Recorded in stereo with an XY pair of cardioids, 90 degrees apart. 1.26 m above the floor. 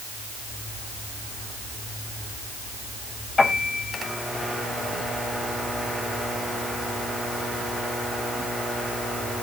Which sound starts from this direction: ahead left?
A piano, at 3.4 s.